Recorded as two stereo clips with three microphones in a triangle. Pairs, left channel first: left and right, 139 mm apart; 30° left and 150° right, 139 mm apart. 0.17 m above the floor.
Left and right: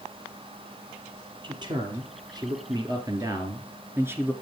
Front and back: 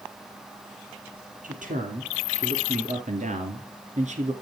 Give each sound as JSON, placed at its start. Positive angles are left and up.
{"t": 1.4, "sound": "a man speaking", "azimuth_deg": -145, "distance_m": 3.5}